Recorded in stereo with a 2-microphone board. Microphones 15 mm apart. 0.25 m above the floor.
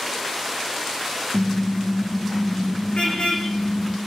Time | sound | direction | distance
1.3 | a car horn | 70° left (ahead or behind) | 8 m